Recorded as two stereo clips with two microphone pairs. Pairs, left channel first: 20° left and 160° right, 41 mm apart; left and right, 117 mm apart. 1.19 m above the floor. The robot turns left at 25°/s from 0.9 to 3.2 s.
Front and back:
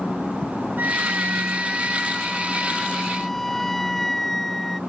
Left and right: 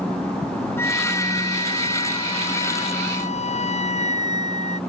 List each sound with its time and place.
0.8 s a flute: 160° left; by 4.8 s 100° left